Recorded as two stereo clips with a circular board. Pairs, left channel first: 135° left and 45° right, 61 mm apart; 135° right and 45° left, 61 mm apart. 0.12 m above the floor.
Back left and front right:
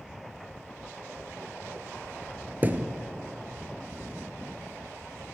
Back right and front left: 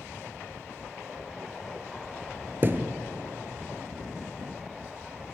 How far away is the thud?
About 0.5 m.